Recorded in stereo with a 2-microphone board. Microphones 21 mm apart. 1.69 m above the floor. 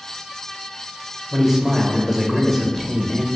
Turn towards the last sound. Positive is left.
turn(degrees=-15)  # may be behind; listen again after turning